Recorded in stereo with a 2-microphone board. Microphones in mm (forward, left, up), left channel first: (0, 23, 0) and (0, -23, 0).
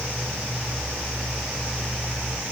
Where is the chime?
I don't hear a chime.